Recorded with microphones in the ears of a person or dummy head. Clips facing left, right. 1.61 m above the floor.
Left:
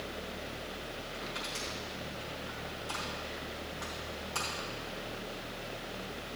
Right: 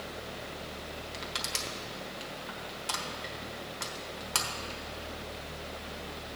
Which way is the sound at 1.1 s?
80° right.